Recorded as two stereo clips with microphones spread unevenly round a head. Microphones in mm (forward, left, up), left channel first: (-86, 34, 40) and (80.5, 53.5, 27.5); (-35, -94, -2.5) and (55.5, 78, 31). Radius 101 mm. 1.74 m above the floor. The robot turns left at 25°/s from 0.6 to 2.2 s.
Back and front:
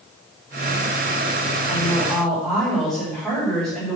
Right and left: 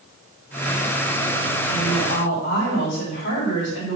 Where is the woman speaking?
75° right, 6 m; by 4.0 s 85° right, 6 m.